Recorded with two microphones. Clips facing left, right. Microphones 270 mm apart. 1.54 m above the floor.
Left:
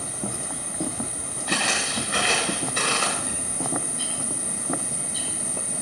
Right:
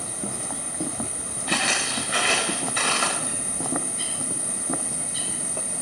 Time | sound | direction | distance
1.5 | footsteps | 55° left (ahead or behind) | 9 m
3.2 | a bird | 65° left (ahead or behind) | 9 m